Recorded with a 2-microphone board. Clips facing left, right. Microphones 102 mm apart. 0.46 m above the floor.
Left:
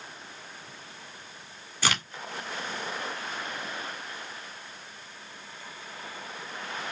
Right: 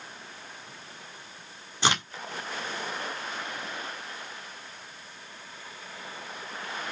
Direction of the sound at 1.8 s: 20° right (ahead or behind).